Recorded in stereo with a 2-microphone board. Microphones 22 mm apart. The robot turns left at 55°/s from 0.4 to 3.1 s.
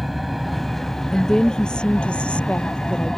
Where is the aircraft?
Centre (ahead or behind); by 3.2 s 25° left (ahead or behind).